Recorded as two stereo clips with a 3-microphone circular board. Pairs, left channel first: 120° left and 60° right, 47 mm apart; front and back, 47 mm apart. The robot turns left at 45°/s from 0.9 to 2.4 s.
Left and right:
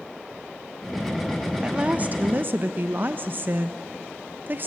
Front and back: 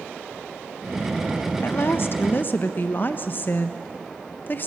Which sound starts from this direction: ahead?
A woman speaking, at 1.6 s.